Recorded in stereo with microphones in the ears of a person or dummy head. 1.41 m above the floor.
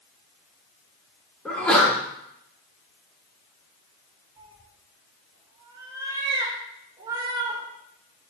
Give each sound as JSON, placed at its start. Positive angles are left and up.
{"t": 1.4, "sound": "a sneeze", "side_deg": 5, "distance_m": 2.5}
{"t": 4.4, "sound": "a cat meowing", "side_deg": -25, "distance_m": 2.5}